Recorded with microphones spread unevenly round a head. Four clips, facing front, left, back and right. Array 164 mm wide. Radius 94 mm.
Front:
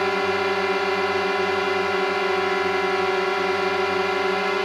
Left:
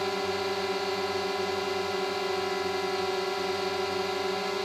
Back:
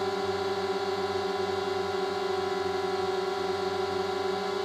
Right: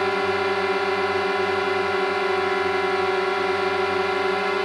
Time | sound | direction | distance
0.0 | a drone | 20° right | ?